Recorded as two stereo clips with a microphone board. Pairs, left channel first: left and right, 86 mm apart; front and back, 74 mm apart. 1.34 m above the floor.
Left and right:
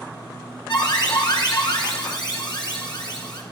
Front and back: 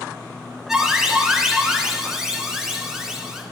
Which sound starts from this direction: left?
An alarm, at 0.7 s.